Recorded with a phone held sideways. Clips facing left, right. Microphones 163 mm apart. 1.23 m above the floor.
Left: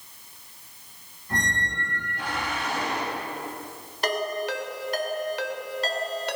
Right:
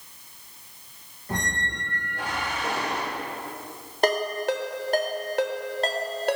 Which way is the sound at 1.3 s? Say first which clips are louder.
Even; 75° right (ahead or behind).